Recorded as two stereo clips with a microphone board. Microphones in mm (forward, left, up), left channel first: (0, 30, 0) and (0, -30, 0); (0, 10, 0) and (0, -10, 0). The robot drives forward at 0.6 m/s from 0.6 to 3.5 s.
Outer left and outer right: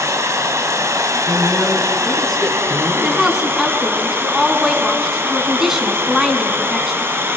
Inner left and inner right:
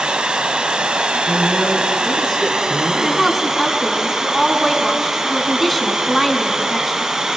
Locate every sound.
0.0 s running water: 60° right (ahead or behind), 1.5 m; by 7.4 s 40° right (ahead or behind), 1.9 m
1.3 s a woman speaking: 5° left (ahead or behind), 3.5 m
3.0 s a woman speaking: 5° right (ahead or behind), 2.5 m